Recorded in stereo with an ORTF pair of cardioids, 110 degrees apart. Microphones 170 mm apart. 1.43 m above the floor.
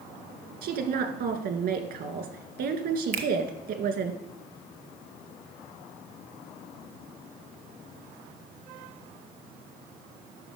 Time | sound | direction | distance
0.6 | a woman speaking | 65° right | 2.0 m
3.1 | a finger snap | 60° right | 1.3 m